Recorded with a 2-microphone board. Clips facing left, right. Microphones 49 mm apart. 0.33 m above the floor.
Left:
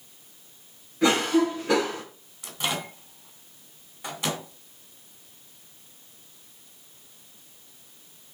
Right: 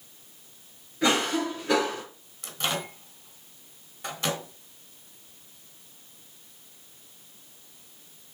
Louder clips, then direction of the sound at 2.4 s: Even; 10° left (ahead or behind).